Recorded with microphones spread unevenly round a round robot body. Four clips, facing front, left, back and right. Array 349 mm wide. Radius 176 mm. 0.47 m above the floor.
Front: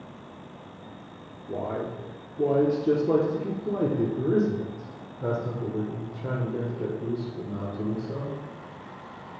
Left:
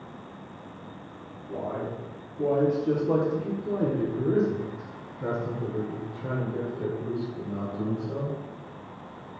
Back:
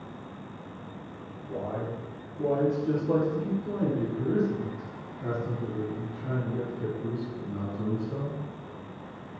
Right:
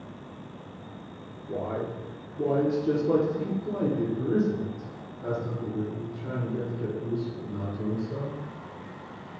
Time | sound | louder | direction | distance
1.5 | a man speaking | right 1 dB, front 3 dB | 45° right | 1.6 m